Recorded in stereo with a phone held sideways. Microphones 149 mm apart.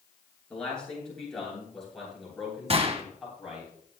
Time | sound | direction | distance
0.5 | a man speaking | 5° left (ahead or behind) | 7.5 m
2.7 | a gunshot | 40° right (ahead or behind) | 1.2 m